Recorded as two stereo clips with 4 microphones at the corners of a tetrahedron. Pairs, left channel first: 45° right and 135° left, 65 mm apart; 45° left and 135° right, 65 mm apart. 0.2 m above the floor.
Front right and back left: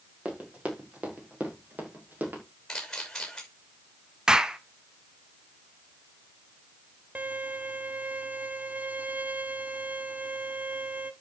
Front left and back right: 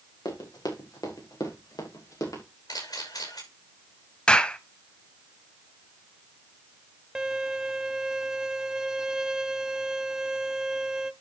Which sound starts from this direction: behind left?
A violin, at 7.2 s.